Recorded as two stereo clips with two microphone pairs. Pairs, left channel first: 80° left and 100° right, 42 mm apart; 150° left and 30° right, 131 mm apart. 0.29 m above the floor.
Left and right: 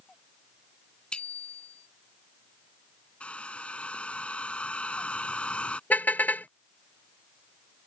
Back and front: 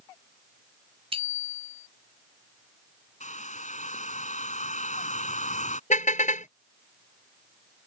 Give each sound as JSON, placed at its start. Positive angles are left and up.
{"t": 1.1, "sound": "a bicycle bell", "azimuth_deg": 10}
{"t": 3.2, "sound": "a hair dryer", "azimuth_deg": 140}
{"t": 5.9, "sound": "a car horn", "azimuth_deg": 130}